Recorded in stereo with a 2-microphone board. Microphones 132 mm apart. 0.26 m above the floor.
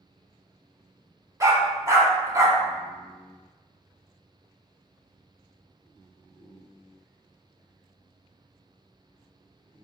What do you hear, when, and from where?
1.4 s a dog barking: 25° right (ahead or behind), 0.9 m